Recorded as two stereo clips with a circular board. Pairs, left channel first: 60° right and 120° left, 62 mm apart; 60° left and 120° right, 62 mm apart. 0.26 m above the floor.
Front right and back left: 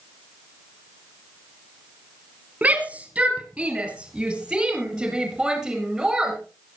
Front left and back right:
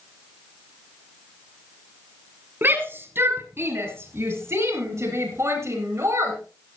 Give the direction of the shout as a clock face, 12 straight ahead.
6 o'clock.